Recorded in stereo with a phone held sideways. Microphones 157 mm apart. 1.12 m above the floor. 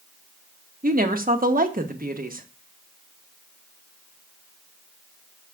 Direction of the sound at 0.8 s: 65° right (ahead or behind).